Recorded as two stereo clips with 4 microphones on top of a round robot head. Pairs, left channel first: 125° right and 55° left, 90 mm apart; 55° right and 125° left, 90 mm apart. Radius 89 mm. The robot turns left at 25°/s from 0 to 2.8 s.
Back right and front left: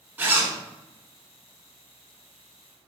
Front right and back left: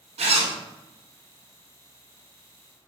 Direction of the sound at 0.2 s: 125° left.